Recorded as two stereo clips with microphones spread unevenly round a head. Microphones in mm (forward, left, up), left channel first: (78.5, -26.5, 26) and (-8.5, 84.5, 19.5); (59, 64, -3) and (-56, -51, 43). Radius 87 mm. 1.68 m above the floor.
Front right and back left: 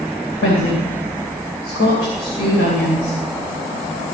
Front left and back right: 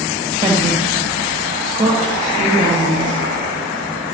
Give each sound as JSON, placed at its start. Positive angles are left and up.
{"t": 0.4, "sound": "a woman speaking", "azimuth_deg": -65, "distance_m": 2.5}